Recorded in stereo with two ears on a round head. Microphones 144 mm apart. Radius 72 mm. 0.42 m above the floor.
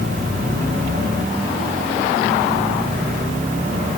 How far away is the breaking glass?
No breaking glass in this recording.